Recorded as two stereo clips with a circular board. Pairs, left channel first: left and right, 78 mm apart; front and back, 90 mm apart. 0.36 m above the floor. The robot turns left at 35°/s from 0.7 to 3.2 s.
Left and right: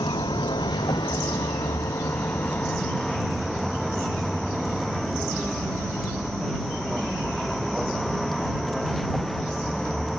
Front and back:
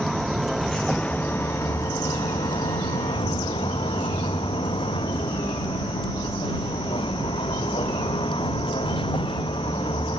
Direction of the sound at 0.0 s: 90° left.